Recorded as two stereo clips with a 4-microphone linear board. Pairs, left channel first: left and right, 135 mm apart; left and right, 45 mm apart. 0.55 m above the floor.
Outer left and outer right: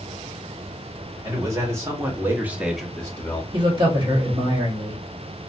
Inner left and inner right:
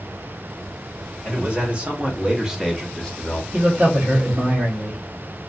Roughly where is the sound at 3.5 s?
Right.